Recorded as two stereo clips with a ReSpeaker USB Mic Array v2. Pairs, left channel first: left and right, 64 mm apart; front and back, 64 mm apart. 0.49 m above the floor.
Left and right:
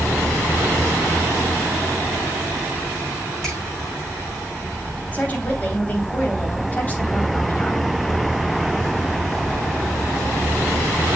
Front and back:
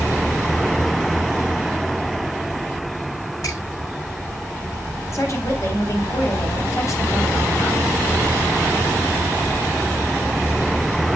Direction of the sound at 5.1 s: 30° left.